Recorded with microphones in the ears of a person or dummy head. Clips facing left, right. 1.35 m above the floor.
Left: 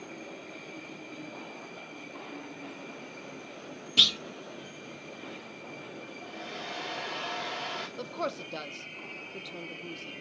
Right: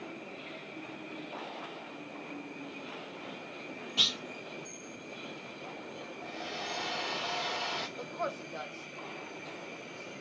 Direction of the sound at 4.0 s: 30° left (ahead or behind).